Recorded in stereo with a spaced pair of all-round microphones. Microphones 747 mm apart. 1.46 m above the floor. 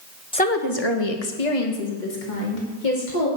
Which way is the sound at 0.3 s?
5° left (ahead or behind).